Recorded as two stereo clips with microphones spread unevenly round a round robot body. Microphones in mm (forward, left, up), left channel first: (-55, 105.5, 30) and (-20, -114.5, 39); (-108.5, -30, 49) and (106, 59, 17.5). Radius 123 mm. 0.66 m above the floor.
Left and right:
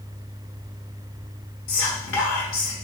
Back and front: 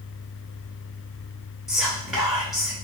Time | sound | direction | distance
1.7 | whispering | 105° left | 1.8 m